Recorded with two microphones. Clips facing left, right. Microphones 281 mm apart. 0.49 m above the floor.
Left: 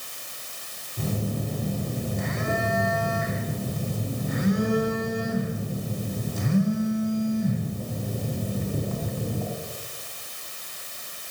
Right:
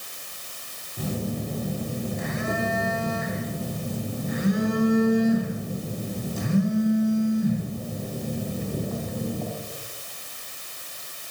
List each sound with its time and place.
1.0 s a phone buzzing: 5° right (ahead or behind), 3 m